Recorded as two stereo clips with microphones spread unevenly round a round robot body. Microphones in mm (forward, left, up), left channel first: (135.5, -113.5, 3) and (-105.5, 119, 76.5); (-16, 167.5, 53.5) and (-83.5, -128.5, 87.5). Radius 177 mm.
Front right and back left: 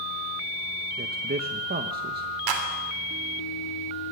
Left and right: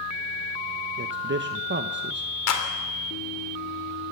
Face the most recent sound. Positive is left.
turn(degrees=110)